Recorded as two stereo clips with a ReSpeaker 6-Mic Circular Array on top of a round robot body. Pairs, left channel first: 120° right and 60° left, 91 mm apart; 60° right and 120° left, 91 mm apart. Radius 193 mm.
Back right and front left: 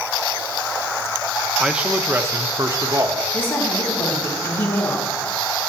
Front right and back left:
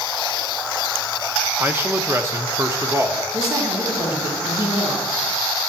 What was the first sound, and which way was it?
A man speaking, 130° left.